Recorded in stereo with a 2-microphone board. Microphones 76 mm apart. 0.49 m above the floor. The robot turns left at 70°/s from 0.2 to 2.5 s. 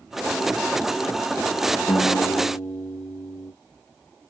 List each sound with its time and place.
1.9 s a guitar: 105° left, 0.5 m; by 3.5 s 60° left, 0.5 m